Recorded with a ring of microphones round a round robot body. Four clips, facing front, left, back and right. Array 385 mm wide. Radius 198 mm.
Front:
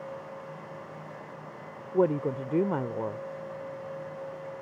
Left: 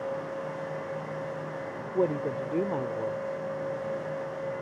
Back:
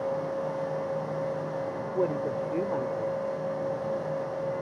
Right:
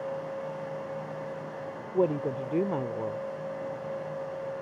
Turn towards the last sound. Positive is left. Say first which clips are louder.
# right 1 dB, front 3 dB
turn(degrees=-15)